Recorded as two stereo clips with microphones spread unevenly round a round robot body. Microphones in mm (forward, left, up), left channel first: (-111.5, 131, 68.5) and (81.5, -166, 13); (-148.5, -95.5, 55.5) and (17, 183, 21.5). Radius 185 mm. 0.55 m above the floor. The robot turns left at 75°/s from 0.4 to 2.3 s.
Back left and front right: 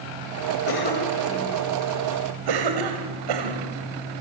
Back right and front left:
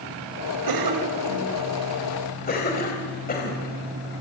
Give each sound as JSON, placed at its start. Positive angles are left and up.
{"t": 0.7, "sound": "a cough", "azimuth_deg": 70, "distance_m": 2.5}